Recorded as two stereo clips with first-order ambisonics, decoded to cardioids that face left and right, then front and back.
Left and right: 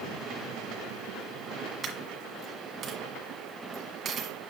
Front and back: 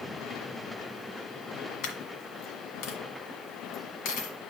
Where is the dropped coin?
25° right, 1.6 m.